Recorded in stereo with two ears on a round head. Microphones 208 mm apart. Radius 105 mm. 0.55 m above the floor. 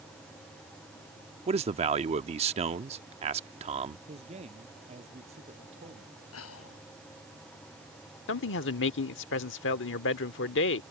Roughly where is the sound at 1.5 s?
Right.